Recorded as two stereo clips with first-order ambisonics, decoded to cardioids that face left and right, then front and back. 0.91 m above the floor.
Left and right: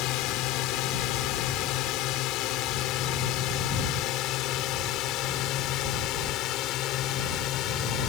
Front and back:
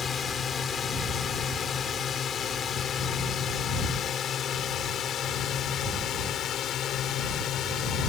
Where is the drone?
65° left; by 8.1 s 50° left.